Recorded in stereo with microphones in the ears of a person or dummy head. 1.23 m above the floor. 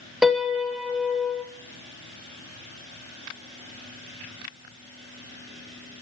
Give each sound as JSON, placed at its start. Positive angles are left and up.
{"t": 0.2, "sound": "a piano", "side_deg": 0, "distance_m": 0.8}